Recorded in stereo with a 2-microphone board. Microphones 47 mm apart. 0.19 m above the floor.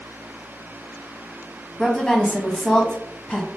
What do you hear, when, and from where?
1.8 s a woman speaking: 15° left (ahead or behind), 1.0 m